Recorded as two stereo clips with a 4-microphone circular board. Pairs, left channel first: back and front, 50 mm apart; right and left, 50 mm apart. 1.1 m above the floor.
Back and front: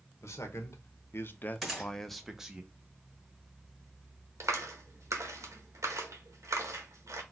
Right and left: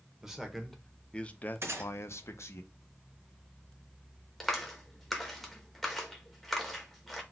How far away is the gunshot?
About 1.5 m.